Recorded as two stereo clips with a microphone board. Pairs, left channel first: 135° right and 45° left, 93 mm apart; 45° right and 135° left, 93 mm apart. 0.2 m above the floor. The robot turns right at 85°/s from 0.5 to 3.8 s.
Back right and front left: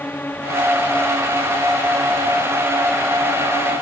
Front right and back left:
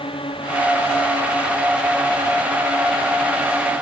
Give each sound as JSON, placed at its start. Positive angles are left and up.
{"t": 0.0, "sound": "a drone", "azimuth_deg": -65}